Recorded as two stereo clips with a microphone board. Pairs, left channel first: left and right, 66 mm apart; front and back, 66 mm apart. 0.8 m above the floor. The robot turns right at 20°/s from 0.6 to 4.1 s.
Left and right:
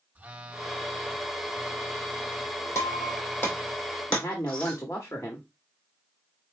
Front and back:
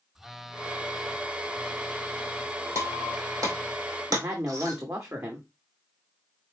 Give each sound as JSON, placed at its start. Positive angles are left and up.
{"t": 0.1, "sound": "a phone buzzing", "azimuth_deg": -105, "distance_m": 0.6}
{"t": 2.8, "sound": "breaking glass", "azimuth_deg": 135, "distance_m": 2.5}
{"t": 4.1, "sound": "a woman speaking", "azimuth_deg": 140, "distance_m": 1.2}